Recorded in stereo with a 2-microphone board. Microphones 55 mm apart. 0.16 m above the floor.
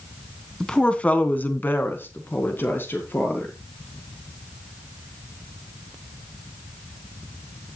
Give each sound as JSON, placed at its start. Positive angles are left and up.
{"t": 0.6, "sound": "a woman speaking", "side_deg": 10, "distance_m": 1.2}